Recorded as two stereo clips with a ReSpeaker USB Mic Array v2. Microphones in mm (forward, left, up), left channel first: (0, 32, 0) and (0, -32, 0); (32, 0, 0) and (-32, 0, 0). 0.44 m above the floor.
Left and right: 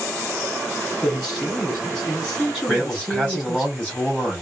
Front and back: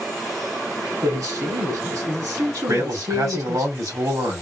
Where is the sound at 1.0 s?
170° left, 3 m.